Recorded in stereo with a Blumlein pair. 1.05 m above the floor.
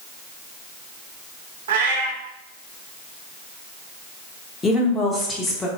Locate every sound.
1.7 s a cat meowing: 60° right, 1.0 m
4.6 s a woman speaking: 15° left, 1.0 m